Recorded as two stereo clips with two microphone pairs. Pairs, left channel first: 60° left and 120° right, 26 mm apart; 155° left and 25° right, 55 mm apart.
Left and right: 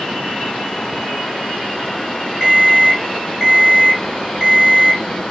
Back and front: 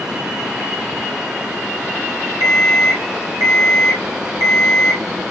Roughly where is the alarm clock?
Ahead right.